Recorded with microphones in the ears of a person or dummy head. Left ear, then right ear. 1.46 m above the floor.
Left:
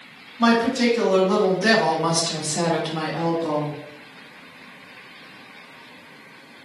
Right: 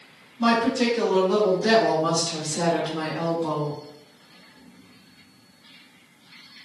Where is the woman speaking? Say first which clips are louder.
Left 2 dB; 40° left (ahead or behind), 1.3 m; by 3.8 s 30° left (ahead or behind), 1.0 m.